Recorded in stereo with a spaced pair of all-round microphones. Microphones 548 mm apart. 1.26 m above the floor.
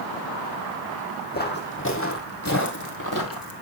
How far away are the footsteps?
About 2 m.